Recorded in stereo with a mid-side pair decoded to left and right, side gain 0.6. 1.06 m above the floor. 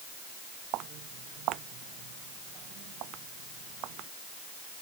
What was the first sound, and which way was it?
Footsteps, 70° right.